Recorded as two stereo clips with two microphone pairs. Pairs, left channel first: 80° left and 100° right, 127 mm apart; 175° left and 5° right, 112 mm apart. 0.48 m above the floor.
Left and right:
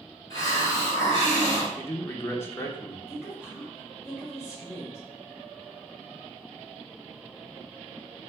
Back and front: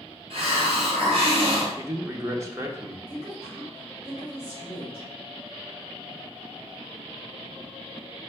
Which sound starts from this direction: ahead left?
A man speaking, at 1.8 s.